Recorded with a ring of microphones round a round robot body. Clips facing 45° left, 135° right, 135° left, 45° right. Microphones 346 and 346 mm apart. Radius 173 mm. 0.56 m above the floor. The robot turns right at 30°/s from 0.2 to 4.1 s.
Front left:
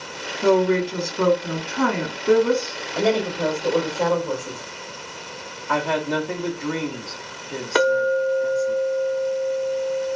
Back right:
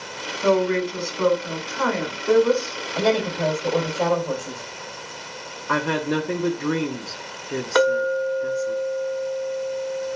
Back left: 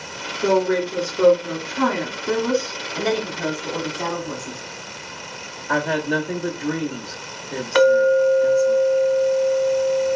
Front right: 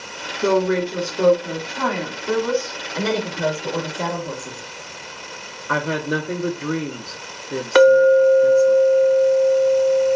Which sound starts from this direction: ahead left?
A woman speaking, at 0.4 s.